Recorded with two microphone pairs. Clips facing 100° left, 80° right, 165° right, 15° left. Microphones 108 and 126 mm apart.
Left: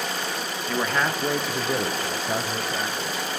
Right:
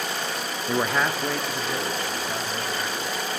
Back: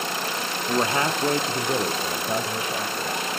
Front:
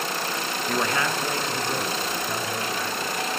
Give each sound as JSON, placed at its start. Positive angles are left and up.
{"t": 0.7, "sound": "a man speaking", "azimuth_deg": -105, "distance_m": 0.6}